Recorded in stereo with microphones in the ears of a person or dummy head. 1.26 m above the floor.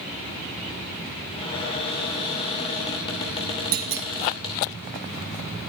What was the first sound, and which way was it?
A cupboard door, 35° left (ahead or behind).